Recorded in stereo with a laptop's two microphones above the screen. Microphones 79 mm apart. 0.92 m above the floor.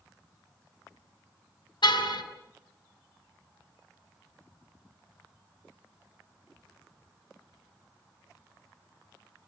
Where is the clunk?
I don't hear a clunk.